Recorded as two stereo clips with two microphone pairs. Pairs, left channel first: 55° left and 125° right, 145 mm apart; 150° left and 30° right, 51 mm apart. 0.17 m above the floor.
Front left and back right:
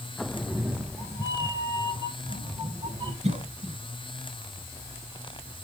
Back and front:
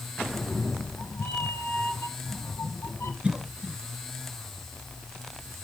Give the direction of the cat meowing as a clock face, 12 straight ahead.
7 o'clock.